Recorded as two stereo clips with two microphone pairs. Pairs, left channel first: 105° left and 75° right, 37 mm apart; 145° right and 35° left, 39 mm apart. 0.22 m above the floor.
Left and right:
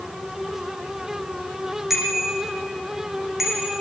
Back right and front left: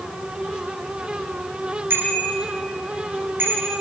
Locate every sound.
1.9 s a bicycle bell: 5° left, 8 m